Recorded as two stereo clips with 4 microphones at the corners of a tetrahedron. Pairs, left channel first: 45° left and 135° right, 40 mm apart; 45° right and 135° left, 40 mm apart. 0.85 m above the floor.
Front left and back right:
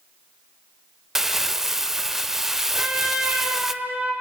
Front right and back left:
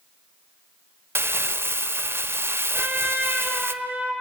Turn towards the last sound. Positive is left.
turn(degrees=180)